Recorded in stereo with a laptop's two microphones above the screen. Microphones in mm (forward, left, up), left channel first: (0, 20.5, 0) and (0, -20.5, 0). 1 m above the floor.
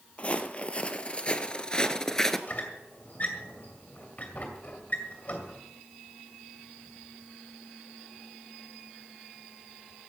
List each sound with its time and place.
0.2 s footsteps: 35° left (ahead or behind), 1.5 m; by 2.4 s 10° left (ahead or behind), 1.0 m
2.5 s a squeak: 40° left (ahead or behind), 2 m